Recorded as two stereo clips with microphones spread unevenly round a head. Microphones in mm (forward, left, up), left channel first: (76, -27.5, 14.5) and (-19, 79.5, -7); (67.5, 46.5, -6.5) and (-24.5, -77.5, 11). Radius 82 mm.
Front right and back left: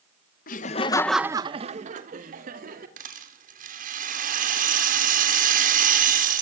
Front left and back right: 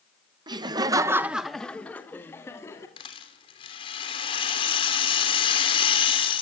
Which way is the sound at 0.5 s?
65° right.